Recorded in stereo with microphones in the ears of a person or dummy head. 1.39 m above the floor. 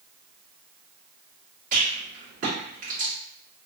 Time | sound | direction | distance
1.7 | a rattle | 45° right (ahead or behind) | 1.7 m